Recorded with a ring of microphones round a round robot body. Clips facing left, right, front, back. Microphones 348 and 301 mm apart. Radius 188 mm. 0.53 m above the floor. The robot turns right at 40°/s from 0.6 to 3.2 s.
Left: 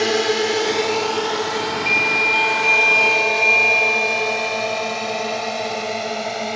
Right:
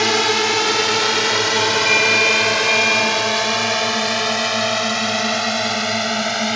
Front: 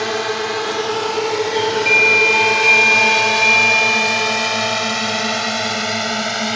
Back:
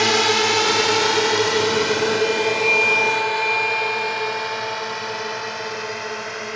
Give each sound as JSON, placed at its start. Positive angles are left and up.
{"t": 0.0, "sound": "a drone", "azimuth_deg": -150}
{"t": 1.5, "sound": "a doorbell", "azimuth_deg": -20}